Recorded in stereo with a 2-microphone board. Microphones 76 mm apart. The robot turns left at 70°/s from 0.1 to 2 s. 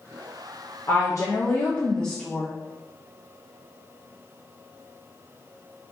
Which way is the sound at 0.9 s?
100° left.